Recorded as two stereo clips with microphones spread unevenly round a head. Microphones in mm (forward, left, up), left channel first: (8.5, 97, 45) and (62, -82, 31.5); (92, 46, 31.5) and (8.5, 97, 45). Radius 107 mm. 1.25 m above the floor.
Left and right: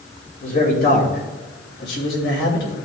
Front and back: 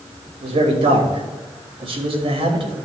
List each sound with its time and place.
0.4 s a man speaking: 155° left, 2.5 m; by 2.8 s 130° left, 2.5 m